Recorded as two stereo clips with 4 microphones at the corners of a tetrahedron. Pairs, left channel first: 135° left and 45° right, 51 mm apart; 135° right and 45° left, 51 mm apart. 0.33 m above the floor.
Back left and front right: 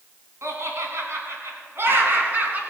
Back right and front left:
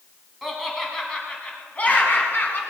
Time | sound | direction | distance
0.4 | laughter | 45° right | 2.5 m